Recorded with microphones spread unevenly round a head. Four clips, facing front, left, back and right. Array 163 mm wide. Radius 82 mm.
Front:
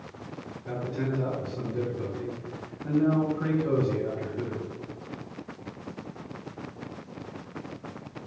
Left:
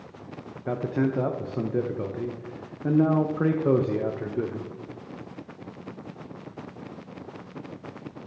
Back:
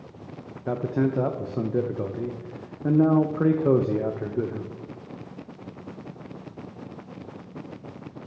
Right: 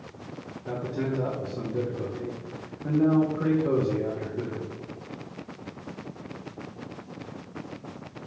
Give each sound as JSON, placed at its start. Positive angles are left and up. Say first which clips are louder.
{"t": 0.7, "sound": "a man speaking", "louder": "left 4 dB, back 7 dB", "azimuth_deg": 155, "distance_m": 0.8}